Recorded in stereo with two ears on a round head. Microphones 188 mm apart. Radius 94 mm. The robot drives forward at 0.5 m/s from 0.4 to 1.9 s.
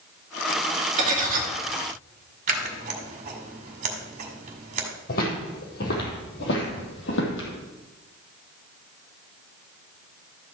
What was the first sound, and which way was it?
Cutlery clinking, 35° right (ahead or behind).